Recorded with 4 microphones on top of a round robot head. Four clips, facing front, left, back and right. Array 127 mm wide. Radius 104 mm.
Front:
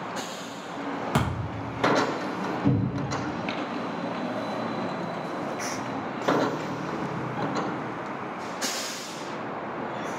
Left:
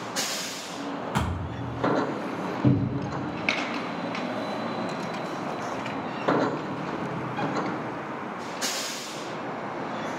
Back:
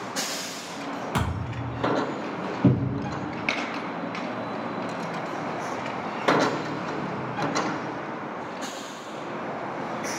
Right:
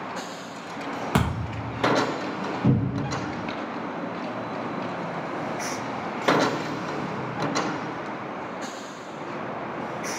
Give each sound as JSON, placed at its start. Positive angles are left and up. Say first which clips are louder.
{"t": 1.1, "sound": "a thud", "louder": "right 4 dB, front 1 dB", "azimuth_deg": -70, "distance_m": 1.0}
{"t": 2.6, "sound": "a cupboard door", "louder": "even, back 4 dB", "azimuth_deg": 170, "distance_m": 0.9}